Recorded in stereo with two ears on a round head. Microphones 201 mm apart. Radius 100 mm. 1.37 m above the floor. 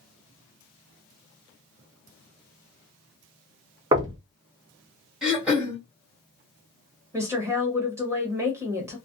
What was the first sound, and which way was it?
Knocking, 20° right (ahead or behind).